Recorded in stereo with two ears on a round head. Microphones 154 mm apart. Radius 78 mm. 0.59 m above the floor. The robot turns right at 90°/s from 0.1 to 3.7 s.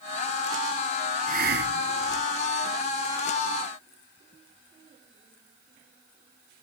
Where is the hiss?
130° right; by 2.3 s 40° right.